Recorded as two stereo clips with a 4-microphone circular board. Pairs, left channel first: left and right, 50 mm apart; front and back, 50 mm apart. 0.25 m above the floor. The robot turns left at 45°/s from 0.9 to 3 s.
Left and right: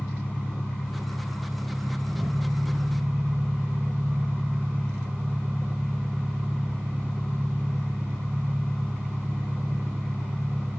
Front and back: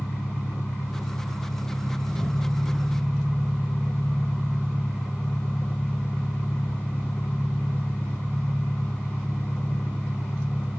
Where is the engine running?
45° left, 5 m; by 10.8 s 50° right, 5 m.